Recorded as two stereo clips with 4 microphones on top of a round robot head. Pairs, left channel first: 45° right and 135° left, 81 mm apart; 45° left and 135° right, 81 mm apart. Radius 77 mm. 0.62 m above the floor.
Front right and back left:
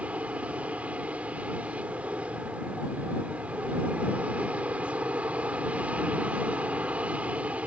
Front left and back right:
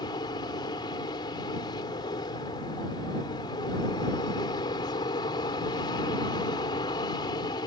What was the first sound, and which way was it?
An aircraft, 65° left.